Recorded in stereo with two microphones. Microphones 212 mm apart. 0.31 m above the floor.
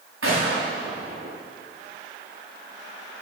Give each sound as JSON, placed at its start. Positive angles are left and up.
{"t": 0.2, "sound": "a gunshot", "side_deg": -90, "distance_m": 6.5}